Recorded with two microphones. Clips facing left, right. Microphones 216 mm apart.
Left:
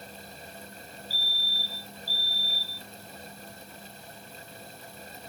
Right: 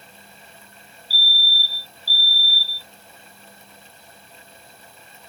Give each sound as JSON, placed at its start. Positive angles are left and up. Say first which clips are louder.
{"t": 1.1, "sound": "a fire alarm", "louder": "right 3 dB", "side_deg": -75}